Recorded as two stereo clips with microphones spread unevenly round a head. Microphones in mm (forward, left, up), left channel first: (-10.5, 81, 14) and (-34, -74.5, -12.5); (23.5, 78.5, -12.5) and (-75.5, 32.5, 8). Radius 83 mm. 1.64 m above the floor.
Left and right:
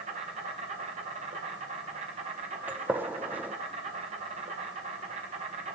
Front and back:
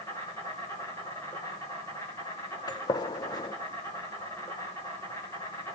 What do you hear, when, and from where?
0.0 s an insect: 50° right, 3 m
2.7 s a gunshot: 10° right, 0.8 m